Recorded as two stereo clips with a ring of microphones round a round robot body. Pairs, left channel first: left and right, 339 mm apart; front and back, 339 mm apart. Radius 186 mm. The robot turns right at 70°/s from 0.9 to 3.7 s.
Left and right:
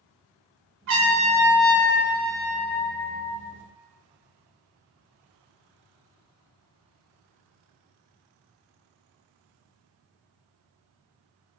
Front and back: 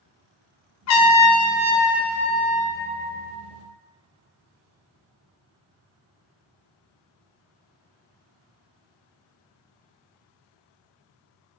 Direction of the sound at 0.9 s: 40° right.